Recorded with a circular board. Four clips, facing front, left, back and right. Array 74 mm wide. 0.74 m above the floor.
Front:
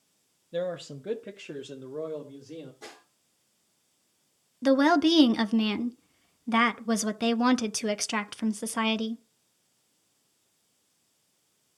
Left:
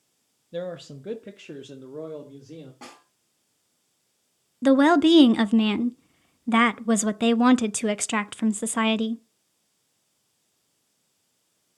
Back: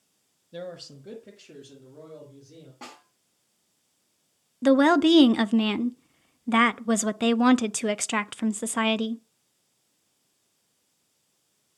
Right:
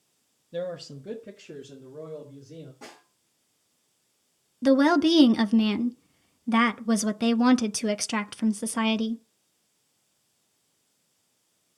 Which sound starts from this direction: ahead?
A man speaking, at 0.5 s.